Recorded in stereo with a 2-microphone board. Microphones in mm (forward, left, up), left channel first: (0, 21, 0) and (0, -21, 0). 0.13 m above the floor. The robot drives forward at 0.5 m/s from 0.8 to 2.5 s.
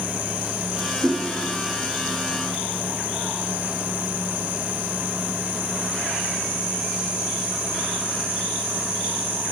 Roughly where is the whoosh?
Right.